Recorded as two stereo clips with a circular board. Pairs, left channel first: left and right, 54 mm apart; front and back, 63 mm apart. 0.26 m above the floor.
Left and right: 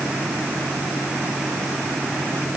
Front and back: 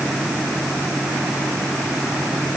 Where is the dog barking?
No dog barking in this recording.